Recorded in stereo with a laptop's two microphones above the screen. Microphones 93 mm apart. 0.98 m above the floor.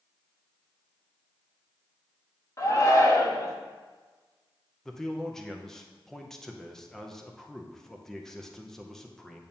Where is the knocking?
No knocking in this recording.